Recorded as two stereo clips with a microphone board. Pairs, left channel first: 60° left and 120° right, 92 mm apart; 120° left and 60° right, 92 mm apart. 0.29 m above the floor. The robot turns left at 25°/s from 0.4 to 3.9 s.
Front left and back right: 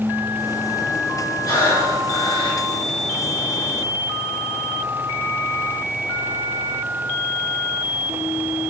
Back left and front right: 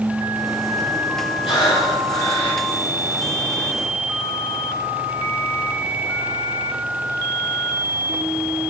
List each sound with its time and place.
1.4 s breathing: 115° left, 4.5 m; by 2.6 s 85° left, 4.5 m